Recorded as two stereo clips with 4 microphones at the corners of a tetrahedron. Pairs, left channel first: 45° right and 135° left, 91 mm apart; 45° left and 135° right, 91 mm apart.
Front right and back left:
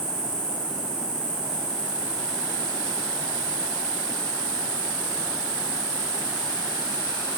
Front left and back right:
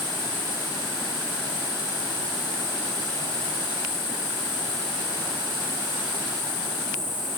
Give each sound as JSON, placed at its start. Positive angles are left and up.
{"t": 0.0, "sound": "an insect", "azimuth_deg": -145, "distance_m": 6.0}